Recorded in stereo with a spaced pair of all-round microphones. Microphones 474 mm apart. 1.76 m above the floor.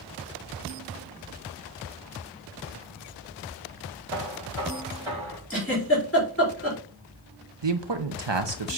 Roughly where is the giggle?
Left.